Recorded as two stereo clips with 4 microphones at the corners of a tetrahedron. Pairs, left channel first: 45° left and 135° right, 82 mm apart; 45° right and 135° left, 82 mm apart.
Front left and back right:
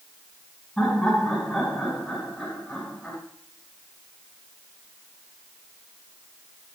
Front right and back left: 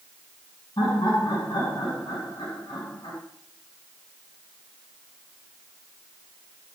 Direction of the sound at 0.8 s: 40° right.